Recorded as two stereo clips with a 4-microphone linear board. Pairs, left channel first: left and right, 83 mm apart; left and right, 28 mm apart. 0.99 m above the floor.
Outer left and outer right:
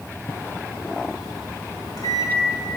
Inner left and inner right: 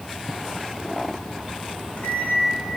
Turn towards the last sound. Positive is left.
turn(degrees=50)  # may be behind; listen again after turning